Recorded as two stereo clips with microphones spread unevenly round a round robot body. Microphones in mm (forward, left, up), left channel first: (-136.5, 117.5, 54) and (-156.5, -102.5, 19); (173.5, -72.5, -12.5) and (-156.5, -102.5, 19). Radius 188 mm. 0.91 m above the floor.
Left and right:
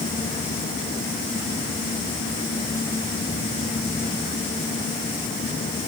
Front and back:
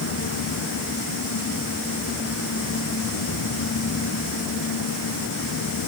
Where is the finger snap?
I don't hear a finger snap.